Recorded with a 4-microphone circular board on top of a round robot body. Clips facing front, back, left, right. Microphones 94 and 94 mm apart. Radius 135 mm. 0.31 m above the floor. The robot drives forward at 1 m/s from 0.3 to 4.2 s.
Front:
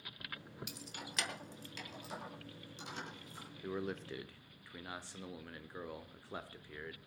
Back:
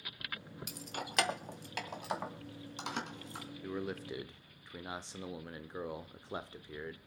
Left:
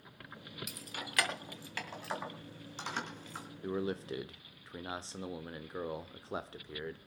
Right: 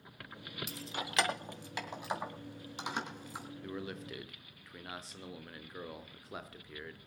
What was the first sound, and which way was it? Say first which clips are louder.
Keys jangling: back 6 dB, right 7 dB; 145° right.